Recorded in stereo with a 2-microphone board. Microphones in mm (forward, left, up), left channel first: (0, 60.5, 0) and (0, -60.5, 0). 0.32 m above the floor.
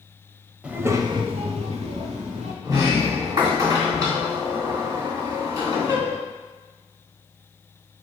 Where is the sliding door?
30° right (ahead or behind), 2 m.